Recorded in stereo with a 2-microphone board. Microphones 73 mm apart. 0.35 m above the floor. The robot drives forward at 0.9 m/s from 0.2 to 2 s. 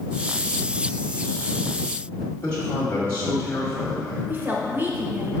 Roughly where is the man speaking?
Left.